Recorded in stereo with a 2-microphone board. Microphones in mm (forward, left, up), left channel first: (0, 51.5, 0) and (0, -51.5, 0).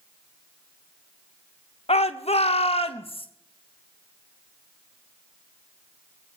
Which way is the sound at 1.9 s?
80° left.